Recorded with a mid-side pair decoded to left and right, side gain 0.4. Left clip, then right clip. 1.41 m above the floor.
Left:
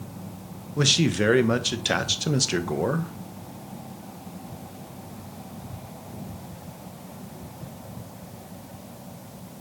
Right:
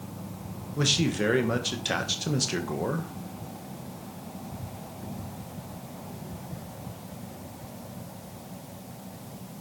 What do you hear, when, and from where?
0.8 s a man speaking: 35° left, 1.0 m